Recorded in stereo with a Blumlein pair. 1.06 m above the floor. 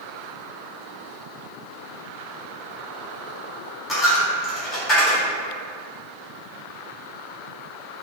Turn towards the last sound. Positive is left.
turn(degrees=25)